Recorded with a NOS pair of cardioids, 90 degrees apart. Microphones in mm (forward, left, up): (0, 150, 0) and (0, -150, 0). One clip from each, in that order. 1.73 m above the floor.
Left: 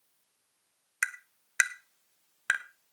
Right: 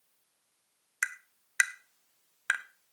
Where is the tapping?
5° left, 0.9 m.